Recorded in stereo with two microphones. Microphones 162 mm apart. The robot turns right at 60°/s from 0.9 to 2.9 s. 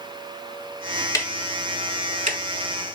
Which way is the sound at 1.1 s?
20° left (ahead or behind).